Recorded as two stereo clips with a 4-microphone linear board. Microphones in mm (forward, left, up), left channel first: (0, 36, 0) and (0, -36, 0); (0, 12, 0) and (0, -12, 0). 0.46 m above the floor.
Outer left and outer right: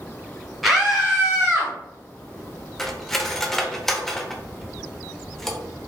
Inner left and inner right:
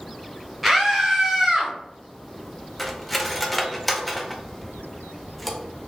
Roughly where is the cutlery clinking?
Centre.